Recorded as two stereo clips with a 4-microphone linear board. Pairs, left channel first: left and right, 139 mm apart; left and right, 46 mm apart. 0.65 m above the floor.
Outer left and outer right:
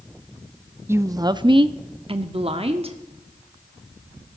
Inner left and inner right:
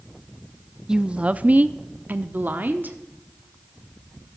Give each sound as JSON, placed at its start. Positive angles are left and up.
{"t": 0.9, "sound": "a woman speaking", "side_deg": -15, "distance_m": 0.5}